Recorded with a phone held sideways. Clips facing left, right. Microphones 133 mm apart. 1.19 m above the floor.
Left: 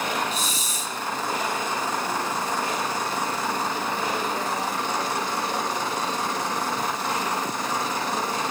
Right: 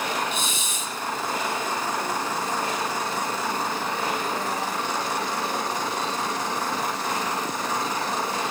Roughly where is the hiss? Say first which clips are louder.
Even; left.